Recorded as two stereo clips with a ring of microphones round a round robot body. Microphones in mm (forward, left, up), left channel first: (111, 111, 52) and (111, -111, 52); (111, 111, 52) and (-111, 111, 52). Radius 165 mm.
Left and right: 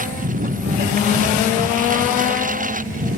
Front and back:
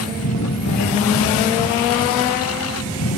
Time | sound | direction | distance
0.0 | a lawn mower | 35° right | ?